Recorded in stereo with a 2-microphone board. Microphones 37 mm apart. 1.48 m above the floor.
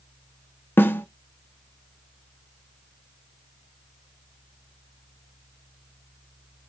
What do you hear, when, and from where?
0.8 s a snare drum: 70° left (ahead or behind), 0.7 m